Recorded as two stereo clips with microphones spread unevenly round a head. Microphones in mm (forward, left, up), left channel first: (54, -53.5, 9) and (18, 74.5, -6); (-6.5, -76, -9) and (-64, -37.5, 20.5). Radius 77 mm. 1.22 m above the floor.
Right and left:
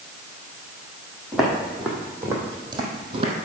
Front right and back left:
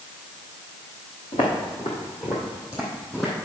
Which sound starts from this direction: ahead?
Footsteps, at 1.3 s.